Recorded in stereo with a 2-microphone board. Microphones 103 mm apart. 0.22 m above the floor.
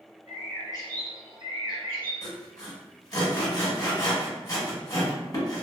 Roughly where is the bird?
Right.